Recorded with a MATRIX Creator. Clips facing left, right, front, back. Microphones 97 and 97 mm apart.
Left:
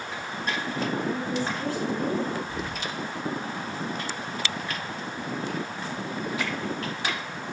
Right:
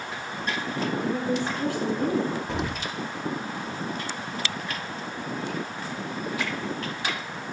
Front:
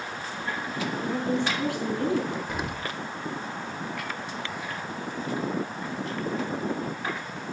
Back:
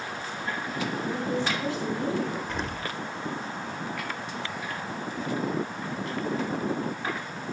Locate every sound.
1.0 s a woman speaking: 20° right, 4.5 m
2.5 s an explosion: 80° right, 0.5 m